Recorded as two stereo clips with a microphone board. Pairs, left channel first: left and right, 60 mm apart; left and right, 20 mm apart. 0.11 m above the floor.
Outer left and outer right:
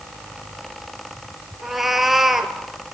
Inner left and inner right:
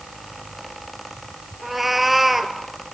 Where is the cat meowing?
5° right (ahead or behind), 1.3 m.